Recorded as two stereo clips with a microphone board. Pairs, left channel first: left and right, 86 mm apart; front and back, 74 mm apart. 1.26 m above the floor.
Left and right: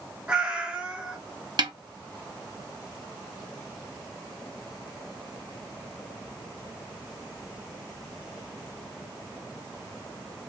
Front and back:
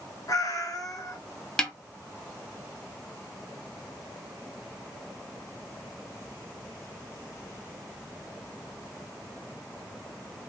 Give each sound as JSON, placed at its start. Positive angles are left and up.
{"t": 0.3, "sound": "a cat meowing", "azimuth_deg": -15, "distance_m": 2.0}
{"t": 1.6, "sound": "a snare drum", "azimuth_deg": -80, "distance_m": 1.0}